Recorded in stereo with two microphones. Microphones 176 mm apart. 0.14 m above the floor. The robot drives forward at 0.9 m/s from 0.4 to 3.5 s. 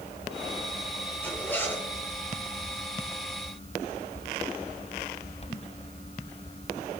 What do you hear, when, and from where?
1.2 s a zipper: 10° left (ahead or behind), 3.5 m; by 1.9 s 15° left (ahead or behind), 3 m